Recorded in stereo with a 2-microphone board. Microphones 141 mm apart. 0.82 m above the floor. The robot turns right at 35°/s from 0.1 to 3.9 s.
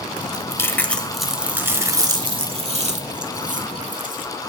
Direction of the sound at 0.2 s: 145° left.